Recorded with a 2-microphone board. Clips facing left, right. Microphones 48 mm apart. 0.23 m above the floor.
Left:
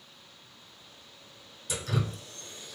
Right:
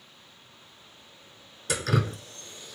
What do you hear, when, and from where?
1.7 s dripping: 75° right (ahead or behind), 0.6 m